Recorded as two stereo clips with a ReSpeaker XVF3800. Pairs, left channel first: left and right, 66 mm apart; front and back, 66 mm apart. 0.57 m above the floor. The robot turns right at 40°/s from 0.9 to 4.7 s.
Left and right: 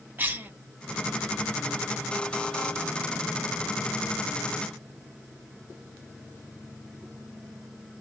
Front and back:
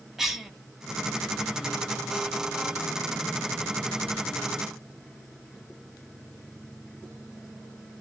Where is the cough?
100° right, 0.9 m.